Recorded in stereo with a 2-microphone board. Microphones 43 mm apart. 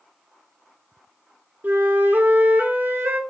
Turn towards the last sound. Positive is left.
turn(degrees=-60)  # may be behind; listen again after turning